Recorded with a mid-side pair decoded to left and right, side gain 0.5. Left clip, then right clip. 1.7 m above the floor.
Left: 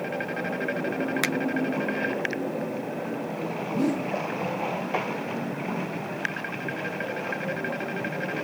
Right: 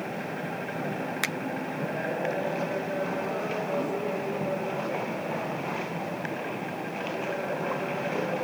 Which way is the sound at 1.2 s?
15° left.